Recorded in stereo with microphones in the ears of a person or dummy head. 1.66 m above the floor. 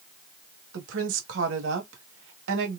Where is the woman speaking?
75° right (ahead or behind), 1.4 m.